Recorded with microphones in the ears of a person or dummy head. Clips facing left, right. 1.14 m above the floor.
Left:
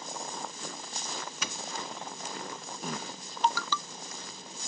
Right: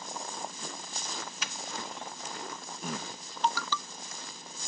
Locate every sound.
1.4 s a doorbell: 75° left (ahead or behind)